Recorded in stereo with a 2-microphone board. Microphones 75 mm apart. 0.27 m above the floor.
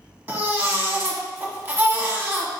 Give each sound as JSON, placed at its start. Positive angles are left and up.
{"t": 0.3, "sound": "a baby crying", "side_deg": -30, "distance_m": 0.8}